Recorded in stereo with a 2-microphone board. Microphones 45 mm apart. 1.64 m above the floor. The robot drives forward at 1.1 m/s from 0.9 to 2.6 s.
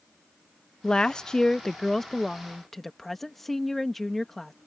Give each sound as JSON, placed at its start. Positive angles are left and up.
{"t": 0.8, "sound": "a woman speaking", "side_deg": 15}